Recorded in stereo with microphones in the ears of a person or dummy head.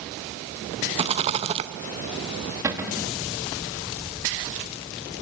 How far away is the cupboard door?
About 1.5 m.